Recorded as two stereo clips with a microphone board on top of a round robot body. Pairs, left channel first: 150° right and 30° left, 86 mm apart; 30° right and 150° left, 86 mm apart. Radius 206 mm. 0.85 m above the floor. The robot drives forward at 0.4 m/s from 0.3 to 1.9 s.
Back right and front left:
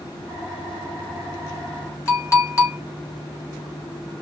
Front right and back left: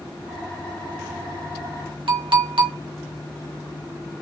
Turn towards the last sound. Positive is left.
turn(degrees=155)